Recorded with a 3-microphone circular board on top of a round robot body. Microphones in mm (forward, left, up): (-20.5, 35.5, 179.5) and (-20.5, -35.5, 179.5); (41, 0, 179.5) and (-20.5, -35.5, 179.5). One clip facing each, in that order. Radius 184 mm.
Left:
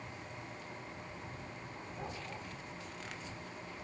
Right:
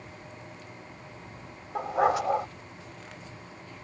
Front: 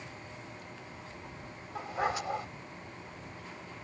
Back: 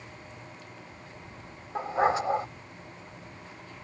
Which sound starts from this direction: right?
A dog barking, at 1.8 s.